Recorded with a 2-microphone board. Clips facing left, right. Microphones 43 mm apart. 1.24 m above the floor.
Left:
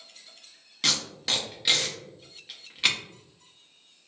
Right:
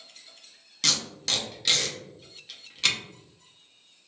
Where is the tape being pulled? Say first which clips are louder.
Left 1 dB; 15° left (ahead or behind), 0.6 m.